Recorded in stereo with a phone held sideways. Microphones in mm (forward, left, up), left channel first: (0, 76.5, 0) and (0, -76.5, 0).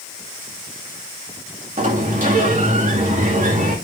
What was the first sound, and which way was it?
A sliding door, 60° right (ahead or behind).